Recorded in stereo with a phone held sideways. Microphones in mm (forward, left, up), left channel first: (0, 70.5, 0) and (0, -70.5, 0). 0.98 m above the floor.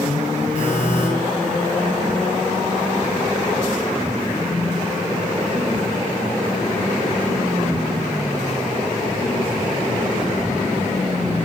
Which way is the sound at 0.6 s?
75° left (ahead or behind).